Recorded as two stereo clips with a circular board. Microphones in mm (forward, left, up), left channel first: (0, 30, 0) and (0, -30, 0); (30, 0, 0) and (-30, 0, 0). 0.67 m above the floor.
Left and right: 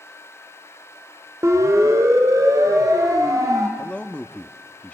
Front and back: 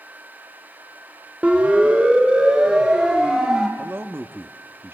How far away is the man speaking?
About 1.2 m.